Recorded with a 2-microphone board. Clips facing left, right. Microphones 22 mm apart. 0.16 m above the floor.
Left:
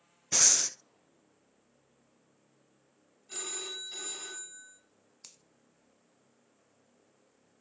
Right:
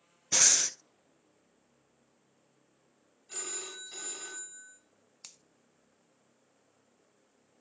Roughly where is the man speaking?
I don't hear a man speaking.